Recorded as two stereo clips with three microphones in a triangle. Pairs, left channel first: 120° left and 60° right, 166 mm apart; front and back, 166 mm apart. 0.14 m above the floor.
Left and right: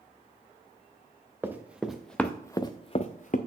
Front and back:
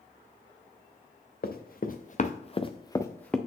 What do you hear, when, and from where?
1.4 s running footsteps: 20° left, 1.0 m; by 3.4 s 85° left, 0.7 m